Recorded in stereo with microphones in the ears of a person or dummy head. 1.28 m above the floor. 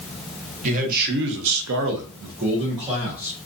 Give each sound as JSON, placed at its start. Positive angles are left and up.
{"t": 0.6, "sound": "a man speaking", "side_deg": -40, "distance_m": 0.8}